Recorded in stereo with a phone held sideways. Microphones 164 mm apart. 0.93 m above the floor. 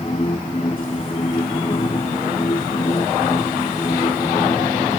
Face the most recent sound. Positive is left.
turn(degrees=40)  # may be behind; listen again after turning